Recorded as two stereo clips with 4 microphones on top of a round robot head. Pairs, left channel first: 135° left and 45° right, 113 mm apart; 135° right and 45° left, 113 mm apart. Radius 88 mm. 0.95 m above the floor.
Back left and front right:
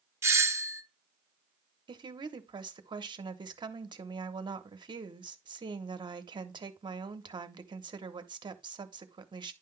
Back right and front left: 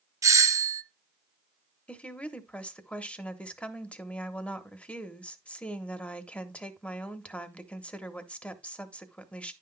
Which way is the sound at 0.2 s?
5° left.